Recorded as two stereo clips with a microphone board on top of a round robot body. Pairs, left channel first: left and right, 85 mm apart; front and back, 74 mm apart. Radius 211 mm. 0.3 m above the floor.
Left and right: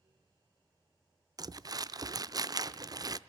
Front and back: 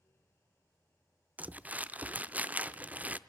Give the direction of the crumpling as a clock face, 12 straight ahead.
4 o'clock.